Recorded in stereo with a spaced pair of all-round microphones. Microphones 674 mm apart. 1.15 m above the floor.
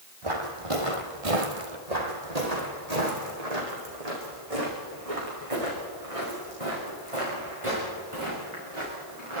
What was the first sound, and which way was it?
Footsteps, 45° right (ahead or behind).